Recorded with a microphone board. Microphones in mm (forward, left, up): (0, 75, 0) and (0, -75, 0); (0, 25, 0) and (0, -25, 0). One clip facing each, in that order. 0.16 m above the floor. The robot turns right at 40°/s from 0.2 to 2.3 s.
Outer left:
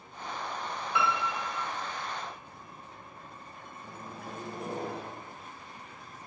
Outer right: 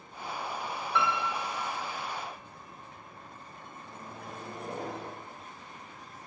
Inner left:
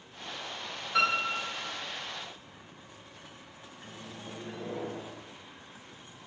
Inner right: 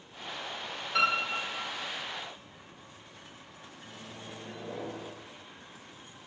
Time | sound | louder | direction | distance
0.9 | a piano | even, even | 10° left (ahead or behind) | 1.5 m
3.8 | a microwave | outer left 2 dB, inner left 2 dB | 35° left (ahead or behind) | 1.6 m